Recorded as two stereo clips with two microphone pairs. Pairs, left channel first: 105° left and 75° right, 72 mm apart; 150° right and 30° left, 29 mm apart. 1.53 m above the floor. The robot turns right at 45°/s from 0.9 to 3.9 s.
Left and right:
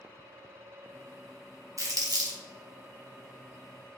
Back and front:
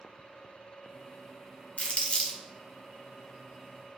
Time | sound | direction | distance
1.8 | crumpling | 115° right | 0.6 m